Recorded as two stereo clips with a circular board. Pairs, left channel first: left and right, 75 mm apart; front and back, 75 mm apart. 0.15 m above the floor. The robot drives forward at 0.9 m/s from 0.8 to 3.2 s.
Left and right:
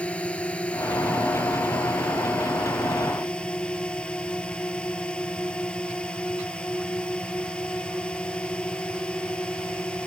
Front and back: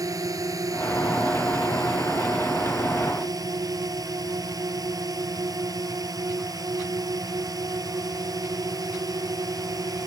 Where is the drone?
160° left; by 10.1 s 165° left.